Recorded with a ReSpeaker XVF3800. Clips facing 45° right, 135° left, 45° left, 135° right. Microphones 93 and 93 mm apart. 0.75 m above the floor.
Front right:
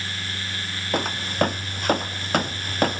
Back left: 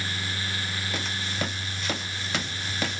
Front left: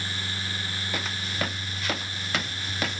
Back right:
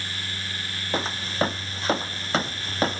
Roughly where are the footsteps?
Right.